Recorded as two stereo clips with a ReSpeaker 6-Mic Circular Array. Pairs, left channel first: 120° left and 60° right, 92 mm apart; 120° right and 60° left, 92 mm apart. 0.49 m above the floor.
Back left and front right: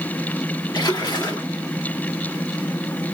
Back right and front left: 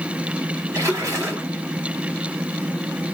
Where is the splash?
105° left, 1.4 m.